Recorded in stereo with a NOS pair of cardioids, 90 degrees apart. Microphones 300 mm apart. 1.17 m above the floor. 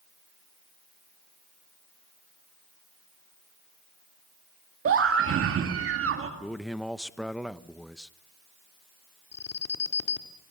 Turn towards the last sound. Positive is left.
turn(degrees=55)